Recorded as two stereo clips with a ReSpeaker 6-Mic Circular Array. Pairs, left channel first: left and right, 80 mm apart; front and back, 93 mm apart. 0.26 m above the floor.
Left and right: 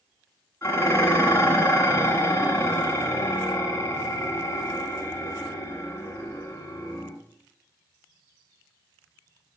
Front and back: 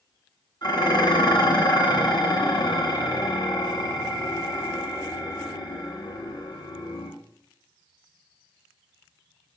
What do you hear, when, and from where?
0.6 s dishes clattering: 35° left, 1.7 m